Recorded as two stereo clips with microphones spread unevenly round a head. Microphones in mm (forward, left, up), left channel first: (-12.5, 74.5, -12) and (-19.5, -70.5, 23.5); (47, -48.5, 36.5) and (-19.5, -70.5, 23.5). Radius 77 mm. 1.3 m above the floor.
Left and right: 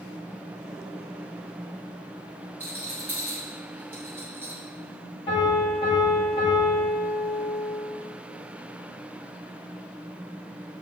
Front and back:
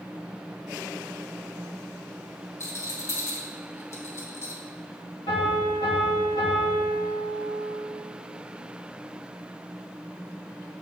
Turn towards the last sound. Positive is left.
turn(degrees=25)